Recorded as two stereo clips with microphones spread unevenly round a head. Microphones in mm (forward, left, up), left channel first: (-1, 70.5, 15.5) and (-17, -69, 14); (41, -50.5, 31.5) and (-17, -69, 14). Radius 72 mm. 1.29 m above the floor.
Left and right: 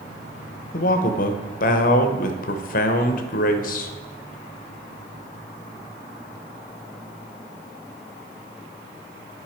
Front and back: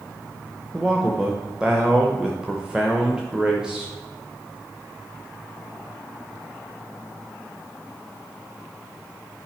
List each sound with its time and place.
0.7 s a man speaking: 115° left, 0.7 m